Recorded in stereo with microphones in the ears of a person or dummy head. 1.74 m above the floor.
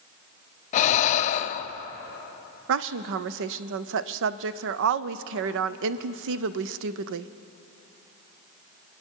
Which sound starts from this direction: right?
A woman speaking, at 2.7 s.